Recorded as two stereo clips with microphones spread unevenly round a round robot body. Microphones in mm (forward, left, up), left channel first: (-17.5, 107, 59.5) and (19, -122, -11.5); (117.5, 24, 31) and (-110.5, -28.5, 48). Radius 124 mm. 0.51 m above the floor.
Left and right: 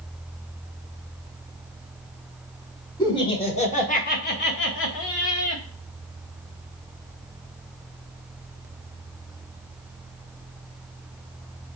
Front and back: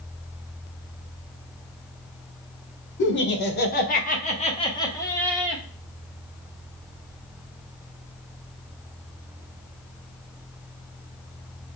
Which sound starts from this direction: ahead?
Laughter, at 3.0 s.